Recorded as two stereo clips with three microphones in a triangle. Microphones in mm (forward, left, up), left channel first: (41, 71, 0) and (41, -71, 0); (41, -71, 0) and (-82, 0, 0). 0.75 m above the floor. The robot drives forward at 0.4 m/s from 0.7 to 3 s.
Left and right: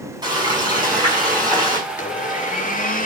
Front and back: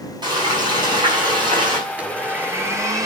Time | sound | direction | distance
0.2 | frying | 150° right | 6.5 m
1.9 | a blender | 70° left | 1.7 m